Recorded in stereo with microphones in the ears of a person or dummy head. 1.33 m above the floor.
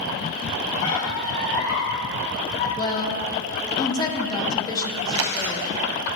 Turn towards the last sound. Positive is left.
turn(degrees=-70)  # may be behind; listen again after turning